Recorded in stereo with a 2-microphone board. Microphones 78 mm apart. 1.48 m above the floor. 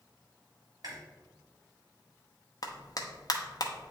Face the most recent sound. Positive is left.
turn(degrees=50)  # may be behind; listen again after turning